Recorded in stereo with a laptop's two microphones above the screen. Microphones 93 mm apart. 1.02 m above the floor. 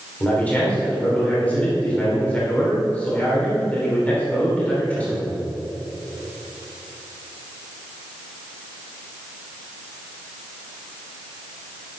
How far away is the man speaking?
About 3 m.